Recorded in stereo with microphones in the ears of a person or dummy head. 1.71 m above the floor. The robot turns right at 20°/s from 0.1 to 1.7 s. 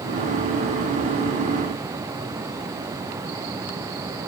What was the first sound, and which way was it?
Only background noise.